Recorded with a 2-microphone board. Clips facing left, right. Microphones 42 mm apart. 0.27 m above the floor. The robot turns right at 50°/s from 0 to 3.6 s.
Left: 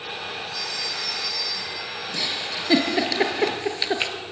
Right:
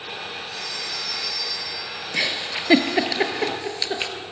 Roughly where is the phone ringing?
Ahead right.